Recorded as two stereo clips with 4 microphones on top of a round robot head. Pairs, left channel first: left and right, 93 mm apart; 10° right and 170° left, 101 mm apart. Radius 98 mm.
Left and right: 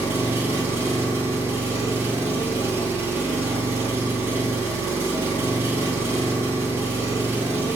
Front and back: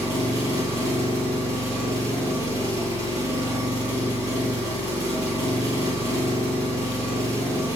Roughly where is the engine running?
Behind right.